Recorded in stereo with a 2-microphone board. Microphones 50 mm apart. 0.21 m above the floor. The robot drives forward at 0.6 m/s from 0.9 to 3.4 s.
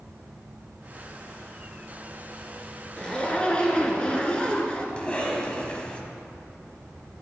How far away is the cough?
About 1.2 m.